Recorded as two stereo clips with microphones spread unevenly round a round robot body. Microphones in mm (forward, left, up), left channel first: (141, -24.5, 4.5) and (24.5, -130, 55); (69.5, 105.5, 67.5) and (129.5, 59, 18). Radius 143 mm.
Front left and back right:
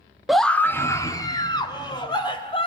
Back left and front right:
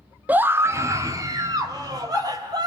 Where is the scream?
35° right, 1.1 m; by 2.7 s 15° right, 4 m.